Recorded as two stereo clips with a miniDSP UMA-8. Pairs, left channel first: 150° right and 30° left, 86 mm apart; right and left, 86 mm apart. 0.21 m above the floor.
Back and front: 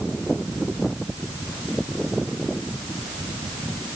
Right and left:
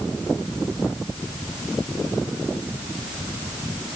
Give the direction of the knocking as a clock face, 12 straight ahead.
No knocking in this recording.